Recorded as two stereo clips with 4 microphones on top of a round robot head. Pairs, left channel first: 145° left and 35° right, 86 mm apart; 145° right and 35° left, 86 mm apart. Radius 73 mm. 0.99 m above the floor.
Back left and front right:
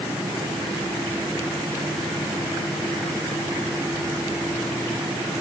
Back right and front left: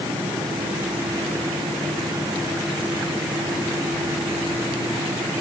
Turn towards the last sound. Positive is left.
No sound to turn to.